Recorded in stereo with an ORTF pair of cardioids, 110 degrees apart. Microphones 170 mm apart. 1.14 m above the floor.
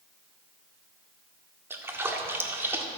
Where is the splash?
15° right, 1.7 m.